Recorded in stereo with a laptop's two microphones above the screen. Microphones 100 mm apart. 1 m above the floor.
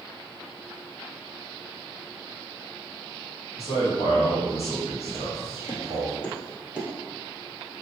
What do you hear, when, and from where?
3.6 s a man speaking: 85° left, 1.6 m
5.1 s footsteps: 60° left (ahead or behind), 2.0 m; by 6.9 s 10° right (ahead or behind), 1.1 m